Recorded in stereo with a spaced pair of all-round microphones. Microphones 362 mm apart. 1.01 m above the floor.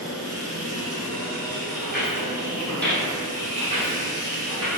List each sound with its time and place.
0.0 s a machine running: 40° right (ahead or behind), 1.1 m
1.8 s footsteps: 30° left (ahead or behind), 1.1 m; by 4.7 s 40° right (ahead or behind), 1.4 m